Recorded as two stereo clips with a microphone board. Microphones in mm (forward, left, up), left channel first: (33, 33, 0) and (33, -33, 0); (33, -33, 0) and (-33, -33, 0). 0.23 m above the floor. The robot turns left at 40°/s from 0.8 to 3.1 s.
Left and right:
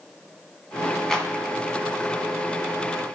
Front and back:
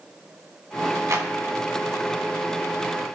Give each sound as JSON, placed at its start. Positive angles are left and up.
{"t": 1.1, "sound": "a clap", "azimuth_deg": 170, "distance_m": 1.2}